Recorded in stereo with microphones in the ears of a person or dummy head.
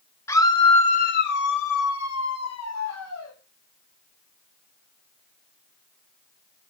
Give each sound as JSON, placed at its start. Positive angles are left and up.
{"t": 0.3, "sound": "a scream", "side_deg": 15, "distance_m": 1.3}